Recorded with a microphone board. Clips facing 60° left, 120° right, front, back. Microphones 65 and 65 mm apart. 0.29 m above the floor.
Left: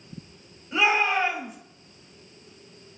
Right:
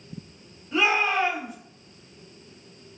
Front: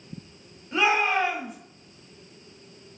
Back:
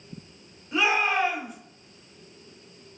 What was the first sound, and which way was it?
A shout, 100° left.